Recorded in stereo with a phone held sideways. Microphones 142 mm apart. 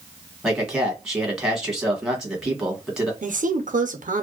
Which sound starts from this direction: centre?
A man speaking, at 0.4 s.